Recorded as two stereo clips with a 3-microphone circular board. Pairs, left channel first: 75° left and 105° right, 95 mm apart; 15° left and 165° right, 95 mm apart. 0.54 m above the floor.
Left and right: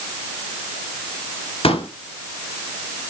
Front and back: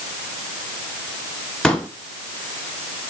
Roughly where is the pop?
Left.